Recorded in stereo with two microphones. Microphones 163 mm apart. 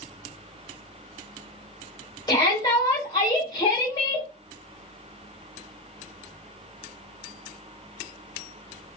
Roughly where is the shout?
Left.